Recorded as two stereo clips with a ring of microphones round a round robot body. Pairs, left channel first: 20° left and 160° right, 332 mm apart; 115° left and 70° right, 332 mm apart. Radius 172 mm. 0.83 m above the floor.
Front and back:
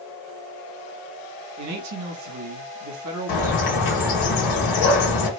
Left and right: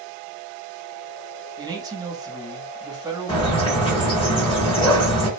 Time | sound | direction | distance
1.6 | a man speaking | 145° right | 0.8 m
3.3 | a bird | 40° left | 0.8 m